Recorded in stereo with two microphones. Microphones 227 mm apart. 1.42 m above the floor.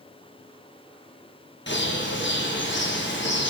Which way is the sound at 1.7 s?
55° left (ahead or behind).